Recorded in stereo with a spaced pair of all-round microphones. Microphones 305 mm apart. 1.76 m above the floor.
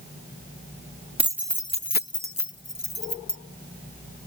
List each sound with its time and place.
1.2 s keys jangling: 20° right (ahead or behind); by 3.4 s 65° left (ahead or behind)